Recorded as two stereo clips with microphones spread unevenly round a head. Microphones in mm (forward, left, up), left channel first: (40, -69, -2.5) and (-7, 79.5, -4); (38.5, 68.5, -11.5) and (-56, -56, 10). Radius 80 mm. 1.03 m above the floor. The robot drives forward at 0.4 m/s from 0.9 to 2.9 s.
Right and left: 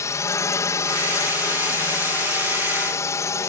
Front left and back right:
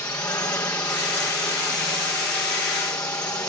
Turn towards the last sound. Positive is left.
turn(degrees=-15)